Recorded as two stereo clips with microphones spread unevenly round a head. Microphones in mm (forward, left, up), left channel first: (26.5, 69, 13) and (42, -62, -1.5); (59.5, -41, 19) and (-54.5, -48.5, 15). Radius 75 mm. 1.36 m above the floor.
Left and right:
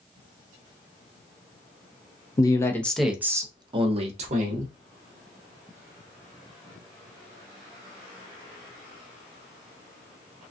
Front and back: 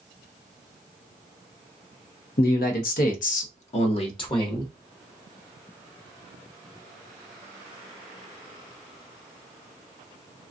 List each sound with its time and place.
2.4 s a man speaking: 35° left, 0.8 m; by 4.7 s 50° right, 1.2 m